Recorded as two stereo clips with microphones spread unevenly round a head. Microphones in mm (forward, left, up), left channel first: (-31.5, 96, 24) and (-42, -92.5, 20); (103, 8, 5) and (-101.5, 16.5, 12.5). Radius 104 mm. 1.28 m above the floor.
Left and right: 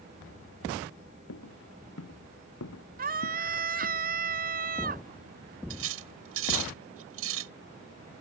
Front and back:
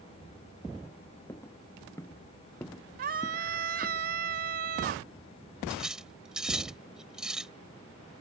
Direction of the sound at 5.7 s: 95° right.